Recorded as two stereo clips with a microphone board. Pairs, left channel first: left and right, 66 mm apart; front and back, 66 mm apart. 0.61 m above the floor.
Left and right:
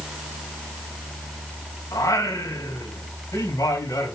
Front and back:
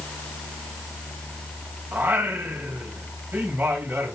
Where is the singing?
125° left, 3 m.